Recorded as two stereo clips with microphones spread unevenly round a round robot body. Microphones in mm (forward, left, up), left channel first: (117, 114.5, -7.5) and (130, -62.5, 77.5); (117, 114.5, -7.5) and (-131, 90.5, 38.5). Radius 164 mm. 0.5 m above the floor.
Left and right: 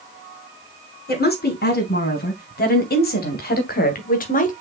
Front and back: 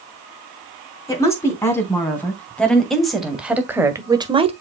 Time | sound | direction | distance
1.1 | a woman speaking | 80° left | 4.5 m